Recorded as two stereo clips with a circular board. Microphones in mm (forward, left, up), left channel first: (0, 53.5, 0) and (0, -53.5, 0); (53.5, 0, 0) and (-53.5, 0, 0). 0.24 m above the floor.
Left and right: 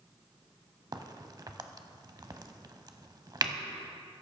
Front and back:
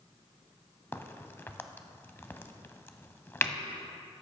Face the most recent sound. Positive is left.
turn(degrees=-60)